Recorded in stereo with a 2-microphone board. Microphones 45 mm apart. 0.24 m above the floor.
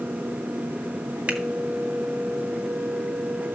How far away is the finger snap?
About 2 m.